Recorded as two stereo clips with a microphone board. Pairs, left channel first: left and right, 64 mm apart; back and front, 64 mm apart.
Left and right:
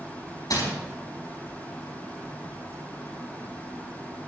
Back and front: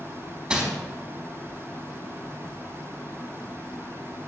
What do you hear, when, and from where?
0.5 s crumpling: 80° left, 4.5 m